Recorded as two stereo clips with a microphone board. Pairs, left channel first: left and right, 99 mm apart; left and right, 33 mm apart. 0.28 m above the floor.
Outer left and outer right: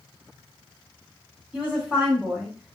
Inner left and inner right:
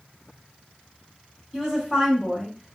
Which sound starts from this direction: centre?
A woman speaking, at 1.5 s.